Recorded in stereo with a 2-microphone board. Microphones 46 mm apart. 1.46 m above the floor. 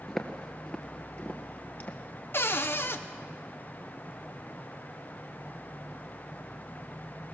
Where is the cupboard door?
55° left (ahead or behind), 1.0 m.